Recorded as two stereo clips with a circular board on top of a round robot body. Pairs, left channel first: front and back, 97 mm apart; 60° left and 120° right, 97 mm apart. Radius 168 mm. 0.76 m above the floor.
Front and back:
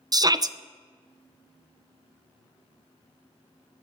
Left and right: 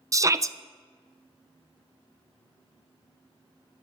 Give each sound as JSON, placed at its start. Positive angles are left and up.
{"t": 0.1, "sound": "a shout", "azimuth_deg": -160, "distance_m": 0.9}